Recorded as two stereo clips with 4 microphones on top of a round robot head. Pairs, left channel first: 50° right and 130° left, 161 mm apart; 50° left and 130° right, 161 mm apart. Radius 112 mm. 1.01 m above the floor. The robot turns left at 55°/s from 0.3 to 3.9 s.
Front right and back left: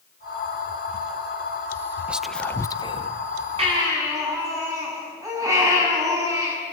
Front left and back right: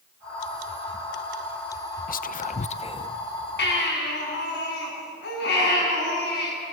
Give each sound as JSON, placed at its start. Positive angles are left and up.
{"t": 2.1, "sound": "whispering", "azimuth_deg": 50, "distance_m": 0.8}
{"t": 3.6, "sound": "a baby crying", "azimuth_deg": 75, "distance_m": 7.0}